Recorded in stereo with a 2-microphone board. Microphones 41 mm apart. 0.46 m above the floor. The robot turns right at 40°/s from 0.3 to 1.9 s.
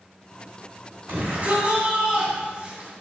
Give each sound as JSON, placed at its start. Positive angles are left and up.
{"t": 1.1, "sound": "a shout", "azimuth_deg": -55, "distance_m": 3.0}